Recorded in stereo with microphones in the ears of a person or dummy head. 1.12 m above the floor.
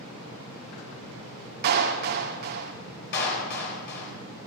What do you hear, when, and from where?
1.6 s a clap: 55° right (ahead or behind), 1.7 m
3.1 s a clap: 60° left (ahead or behind), 4 m